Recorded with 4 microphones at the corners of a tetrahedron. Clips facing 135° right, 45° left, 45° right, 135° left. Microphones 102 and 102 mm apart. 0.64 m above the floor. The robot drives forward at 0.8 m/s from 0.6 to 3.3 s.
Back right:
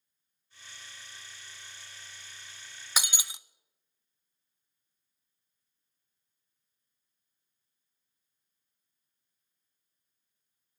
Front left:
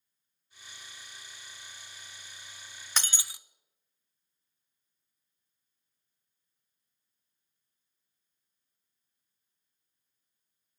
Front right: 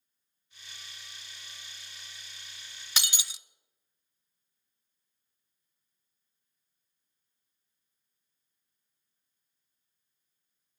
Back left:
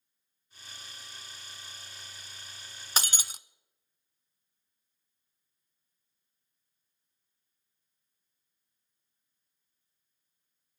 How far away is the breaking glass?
About 0.6 m.